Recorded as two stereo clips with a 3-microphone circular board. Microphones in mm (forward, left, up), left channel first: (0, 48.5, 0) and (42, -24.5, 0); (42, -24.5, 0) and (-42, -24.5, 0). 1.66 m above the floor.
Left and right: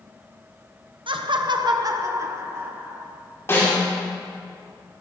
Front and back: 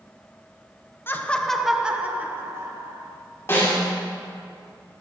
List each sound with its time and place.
1.1 s laughter: 65° right, 1.3 m; by 3.1 s 125° right, 2.5 m
3.5 s a snare drum: 60° left, 5.5 m